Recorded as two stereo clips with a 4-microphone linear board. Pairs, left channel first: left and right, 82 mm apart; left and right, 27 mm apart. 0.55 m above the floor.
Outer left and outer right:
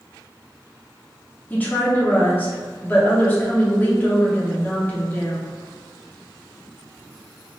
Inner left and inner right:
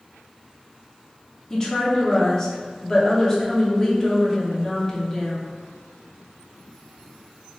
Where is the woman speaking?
25° left (ahead or behind), 0.7 m.